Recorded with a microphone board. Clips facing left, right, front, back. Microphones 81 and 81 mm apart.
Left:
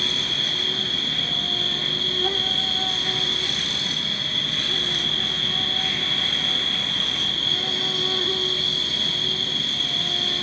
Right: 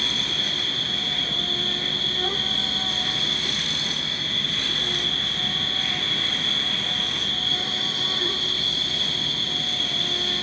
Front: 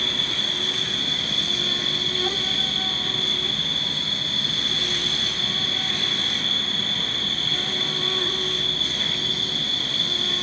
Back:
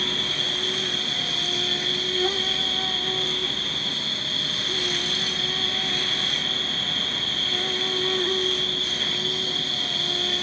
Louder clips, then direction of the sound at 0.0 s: Even, even; 100° right.